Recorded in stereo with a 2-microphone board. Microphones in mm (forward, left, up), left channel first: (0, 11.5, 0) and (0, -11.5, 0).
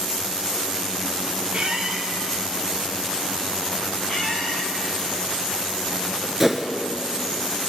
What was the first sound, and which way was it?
A squeak, 35° right (ahead or behind).